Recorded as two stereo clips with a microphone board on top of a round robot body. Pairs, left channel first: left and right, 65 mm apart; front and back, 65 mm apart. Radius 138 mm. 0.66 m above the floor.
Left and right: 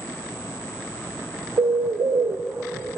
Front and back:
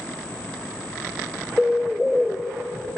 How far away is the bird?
About 0.6 m.